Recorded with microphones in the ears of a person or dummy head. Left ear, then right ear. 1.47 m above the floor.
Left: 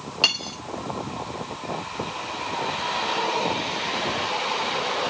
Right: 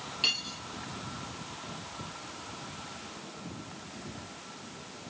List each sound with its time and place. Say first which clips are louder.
0.2 s cutlery clinking: left 7 dB; 40° left (ahead or behind), 1.2 m